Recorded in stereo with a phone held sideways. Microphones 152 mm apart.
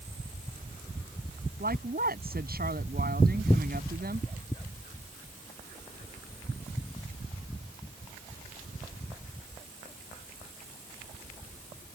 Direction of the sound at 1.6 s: 75° right (ahead or behind).